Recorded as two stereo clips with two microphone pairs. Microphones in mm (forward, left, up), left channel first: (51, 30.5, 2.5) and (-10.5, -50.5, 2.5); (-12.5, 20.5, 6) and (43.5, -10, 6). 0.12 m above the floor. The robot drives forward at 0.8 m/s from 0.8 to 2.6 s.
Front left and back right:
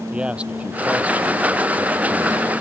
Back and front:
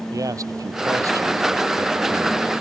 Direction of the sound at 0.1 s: 50° right.